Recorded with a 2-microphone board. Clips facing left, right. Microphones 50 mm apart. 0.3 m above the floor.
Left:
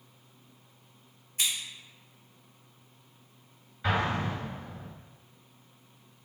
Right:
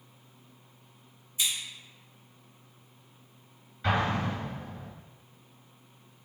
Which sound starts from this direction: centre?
An explosion, at 3.8 s.